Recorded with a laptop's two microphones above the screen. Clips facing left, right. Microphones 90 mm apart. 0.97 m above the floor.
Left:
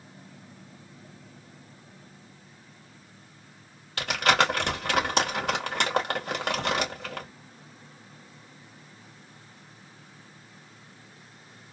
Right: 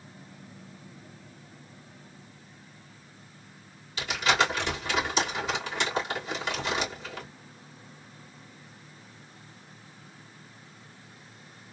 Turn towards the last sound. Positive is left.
turn(degrees=60)  # may be behind; listen again after turning